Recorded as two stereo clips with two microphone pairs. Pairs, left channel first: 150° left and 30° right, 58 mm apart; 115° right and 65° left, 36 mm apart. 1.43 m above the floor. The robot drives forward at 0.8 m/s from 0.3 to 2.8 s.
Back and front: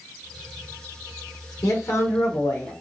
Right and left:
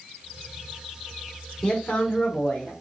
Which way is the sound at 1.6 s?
175° left.